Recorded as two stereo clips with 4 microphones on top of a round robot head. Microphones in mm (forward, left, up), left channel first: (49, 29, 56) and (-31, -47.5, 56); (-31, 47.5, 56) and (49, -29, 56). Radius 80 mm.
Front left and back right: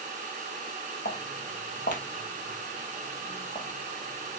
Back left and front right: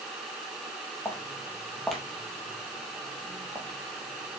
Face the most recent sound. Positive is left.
turn(degrees=-25)